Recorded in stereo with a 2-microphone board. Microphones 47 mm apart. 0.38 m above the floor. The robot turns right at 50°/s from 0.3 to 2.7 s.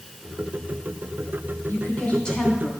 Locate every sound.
1.7 s a woman speaking: 130° left, 3 m; by 2.7 s straight behind, 3 m